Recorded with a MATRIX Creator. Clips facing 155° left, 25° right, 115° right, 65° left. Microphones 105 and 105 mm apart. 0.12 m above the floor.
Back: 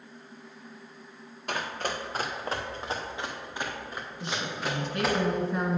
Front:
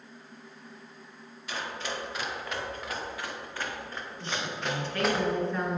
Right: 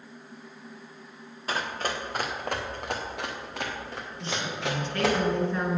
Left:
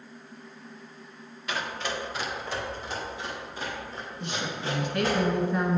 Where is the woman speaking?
105° left, 1.5 m.